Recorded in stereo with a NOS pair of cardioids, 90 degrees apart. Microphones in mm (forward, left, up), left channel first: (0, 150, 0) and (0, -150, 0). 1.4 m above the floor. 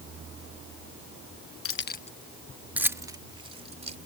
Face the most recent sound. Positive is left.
turn(degrees=-20)